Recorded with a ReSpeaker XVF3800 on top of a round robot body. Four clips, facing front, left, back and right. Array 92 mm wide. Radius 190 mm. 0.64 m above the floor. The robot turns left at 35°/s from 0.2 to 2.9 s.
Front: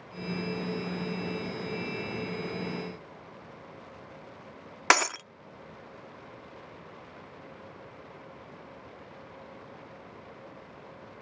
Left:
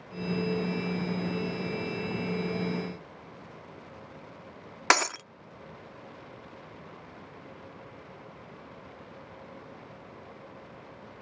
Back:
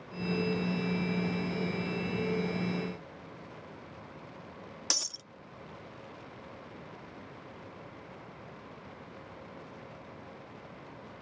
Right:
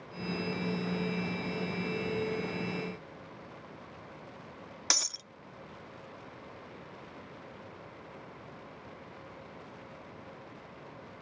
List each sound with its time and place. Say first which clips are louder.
4.9 s breaking glass: left 15 dB, front 22 dB; 40° left